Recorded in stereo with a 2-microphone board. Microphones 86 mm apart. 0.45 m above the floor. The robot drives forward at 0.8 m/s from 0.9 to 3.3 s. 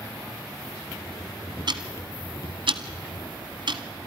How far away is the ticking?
About 1.6 m.